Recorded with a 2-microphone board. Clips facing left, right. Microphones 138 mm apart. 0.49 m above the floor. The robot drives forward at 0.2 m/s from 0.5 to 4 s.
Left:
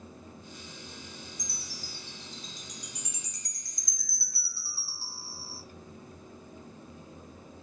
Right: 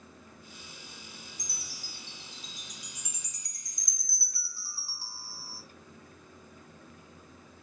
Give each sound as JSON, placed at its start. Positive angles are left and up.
{"t": 1.4, "sound": "a chime", "side_deg": -25, "distance_m": 1.8}